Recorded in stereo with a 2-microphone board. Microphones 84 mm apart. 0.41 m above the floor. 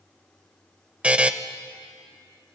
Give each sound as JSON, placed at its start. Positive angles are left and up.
{"t": 1.0, "sound": "a buzzer", "side_deg": -15, "distance_m": 0.6}